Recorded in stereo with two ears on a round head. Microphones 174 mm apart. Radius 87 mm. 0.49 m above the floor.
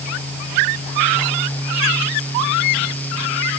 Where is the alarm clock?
I don't hear an alarm clock.